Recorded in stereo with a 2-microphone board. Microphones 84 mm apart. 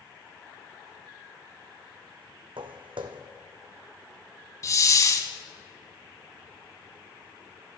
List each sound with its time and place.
2.6 s footsteps: 80° right, 0.7 m
4.6 s a hiss: 40° left (ahead or behind), 0.7 m